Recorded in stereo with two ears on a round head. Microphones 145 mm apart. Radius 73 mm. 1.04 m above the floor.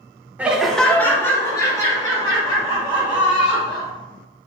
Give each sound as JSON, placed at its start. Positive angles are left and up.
{"t": 0.4, "sound": "laughter", "side_deg": -10, "distance_m": 0.5}